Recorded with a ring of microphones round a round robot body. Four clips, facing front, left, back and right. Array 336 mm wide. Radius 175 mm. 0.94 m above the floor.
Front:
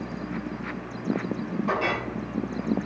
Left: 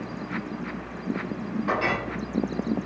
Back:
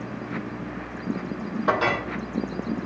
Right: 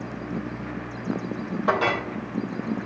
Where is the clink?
140° right, 3 m.